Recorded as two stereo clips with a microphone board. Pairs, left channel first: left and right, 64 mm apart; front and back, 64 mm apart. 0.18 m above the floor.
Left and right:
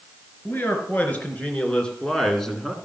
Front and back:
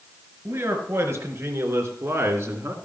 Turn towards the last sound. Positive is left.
turn(degrees=180)